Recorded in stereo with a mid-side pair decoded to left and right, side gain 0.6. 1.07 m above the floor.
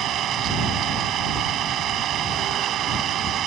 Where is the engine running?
55° right.